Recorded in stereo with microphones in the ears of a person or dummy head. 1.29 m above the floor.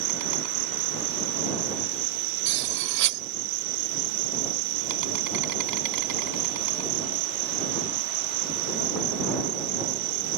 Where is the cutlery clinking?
65° right (ahead or behind).